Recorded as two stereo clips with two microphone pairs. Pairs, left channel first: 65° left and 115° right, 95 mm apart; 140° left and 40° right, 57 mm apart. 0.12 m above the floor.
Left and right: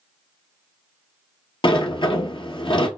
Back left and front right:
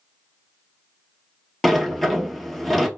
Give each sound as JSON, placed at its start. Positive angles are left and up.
{"t": 1.6, "sound": "a sliding door", "azimuth_deg": 55, "distance_m": 0.8}